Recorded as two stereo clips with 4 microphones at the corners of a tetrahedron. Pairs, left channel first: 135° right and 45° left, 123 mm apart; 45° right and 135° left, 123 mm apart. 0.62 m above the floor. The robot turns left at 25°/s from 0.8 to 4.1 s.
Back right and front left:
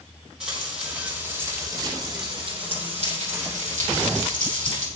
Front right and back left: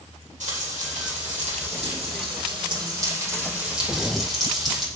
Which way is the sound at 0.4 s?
125° left.